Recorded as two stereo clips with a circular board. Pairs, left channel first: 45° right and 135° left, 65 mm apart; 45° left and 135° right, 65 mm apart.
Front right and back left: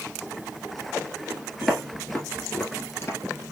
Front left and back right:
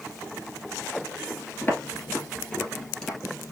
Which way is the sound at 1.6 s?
40° left.